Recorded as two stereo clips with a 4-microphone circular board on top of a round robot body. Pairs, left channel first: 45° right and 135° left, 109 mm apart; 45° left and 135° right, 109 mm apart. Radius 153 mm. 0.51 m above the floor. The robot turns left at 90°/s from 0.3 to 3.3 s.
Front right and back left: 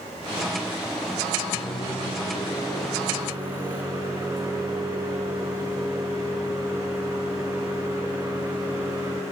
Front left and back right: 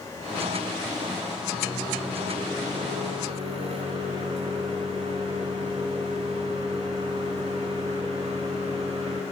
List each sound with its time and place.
1.5 s a microwave: 5° left, 2.5 m; by 9.2 s 155° right, 2.5 m